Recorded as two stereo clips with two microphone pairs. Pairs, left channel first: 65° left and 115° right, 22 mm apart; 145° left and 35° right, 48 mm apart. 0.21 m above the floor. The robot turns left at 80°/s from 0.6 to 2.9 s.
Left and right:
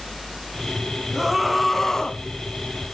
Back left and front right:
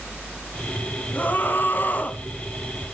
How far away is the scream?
About 1.7 m.